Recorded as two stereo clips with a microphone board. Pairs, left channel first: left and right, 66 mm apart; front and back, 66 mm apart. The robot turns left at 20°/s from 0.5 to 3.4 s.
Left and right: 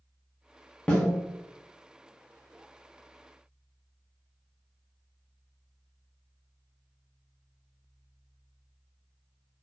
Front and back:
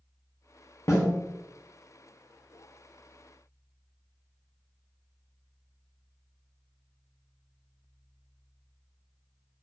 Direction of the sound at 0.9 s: 15° left.